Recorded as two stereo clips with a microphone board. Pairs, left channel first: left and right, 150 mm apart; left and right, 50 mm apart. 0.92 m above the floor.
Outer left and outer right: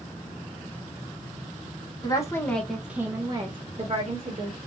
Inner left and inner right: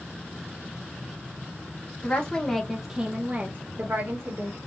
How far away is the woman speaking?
About 0.8 m.